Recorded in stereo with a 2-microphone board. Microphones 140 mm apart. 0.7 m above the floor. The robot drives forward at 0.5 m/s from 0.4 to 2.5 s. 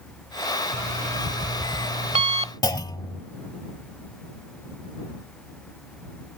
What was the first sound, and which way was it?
An alarm clock, 75° right (ahead or behind).